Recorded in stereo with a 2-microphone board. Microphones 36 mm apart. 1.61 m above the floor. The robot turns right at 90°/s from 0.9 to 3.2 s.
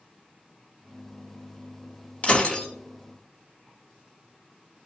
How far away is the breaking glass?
About 1.1 m.